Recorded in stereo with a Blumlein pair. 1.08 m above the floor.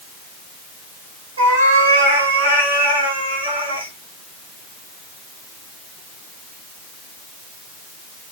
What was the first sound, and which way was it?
A cat meowing, 65° right.